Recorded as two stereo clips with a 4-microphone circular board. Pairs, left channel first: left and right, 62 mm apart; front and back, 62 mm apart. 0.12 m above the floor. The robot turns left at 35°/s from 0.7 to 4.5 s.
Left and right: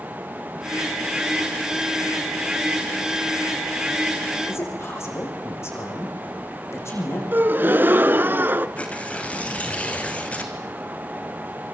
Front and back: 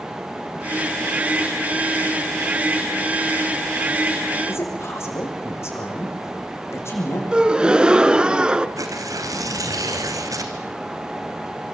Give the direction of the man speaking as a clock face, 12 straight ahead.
10 o'clock.